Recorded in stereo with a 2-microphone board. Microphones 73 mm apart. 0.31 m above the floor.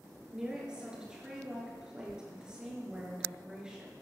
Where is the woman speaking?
10° right (ahead or behind), 5 m.